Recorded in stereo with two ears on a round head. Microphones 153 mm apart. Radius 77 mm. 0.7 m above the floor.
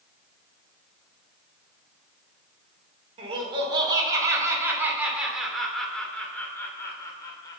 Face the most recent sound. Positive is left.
turn(degrees=25)  # may be behind; listen again after turning